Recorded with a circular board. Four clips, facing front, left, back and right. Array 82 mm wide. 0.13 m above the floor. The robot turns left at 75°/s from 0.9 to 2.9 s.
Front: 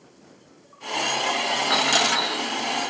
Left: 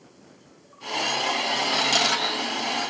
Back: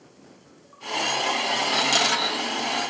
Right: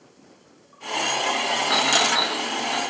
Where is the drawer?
I don't hear a drawer.